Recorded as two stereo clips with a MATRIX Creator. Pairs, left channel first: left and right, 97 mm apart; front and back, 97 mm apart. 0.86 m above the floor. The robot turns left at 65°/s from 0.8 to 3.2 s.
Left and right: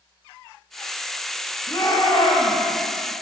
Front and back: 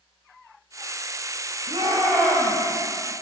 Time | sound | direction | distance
1.7 | a shout | 150° left | 5 m